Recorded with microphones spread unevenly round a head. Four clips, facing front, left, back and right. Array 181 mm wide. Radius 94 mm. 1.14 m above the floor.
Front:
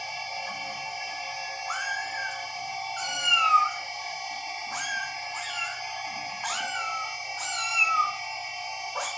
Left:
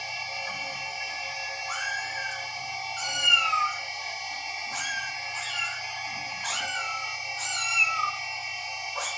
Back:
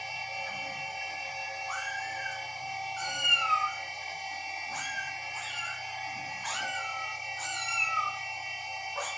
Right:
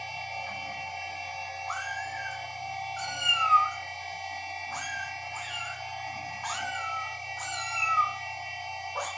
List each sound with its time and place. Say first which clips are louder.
0.0 s a machine running: even, front 3 dB; 10° left, 1.3 m
1.7 s a cat meowing: left 1 dB, front 5 dB; 25° right, 1.3 m